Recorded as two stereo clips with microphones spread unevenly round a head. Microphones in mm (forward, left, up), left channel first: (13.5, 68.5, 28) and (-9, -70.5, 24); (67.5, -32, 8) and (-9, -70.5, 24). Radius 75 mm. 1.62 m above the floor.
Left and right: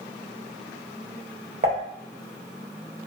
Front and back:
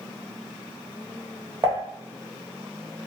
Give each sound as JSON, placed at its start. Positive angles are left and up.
{"t": 1.6, "sound": "dishes clattering", "azimuth_deg": -125, "distance_m": 0.9}